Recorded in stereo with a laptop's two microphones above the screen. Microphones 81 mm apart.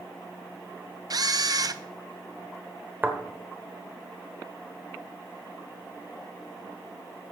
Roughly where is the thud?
Right.